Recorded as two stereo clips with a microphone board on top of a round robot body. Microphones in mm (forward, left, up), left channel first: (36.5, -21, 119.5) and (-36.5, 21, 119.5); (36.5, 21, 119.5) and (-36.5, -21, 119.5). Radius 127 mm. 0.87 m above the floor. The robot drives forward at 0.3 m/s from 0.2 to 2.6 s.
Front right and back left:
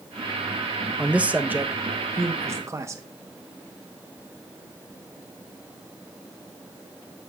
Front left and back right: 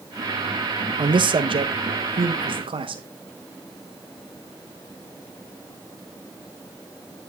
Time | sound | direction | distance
1.0 | a man speaking | 130° right | 0.7 m